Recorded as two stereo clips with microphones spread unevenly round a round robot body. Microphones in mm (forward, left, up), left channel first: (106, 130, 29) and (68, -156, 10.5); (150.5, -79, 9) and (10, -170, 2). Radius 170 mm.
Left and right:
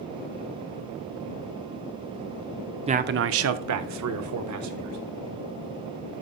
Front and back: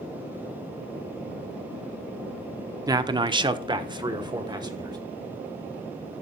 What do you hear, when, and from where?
2.9 s a man speaking: 125° right, 0.6 m; by 5.0 s 80° right, 2.5 m